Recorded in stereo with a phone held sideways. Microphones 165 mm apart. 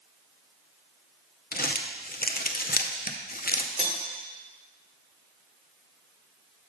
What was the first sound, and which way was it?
Crumpling, 60° left (ahead or behind).